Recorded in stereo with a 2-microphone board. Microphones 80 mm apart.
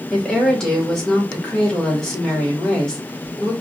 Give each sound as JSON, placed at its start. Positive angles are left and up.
{"t": 0.1, "sound": "a woman speaking", "side_deg": 10, "distance_m": 2.5}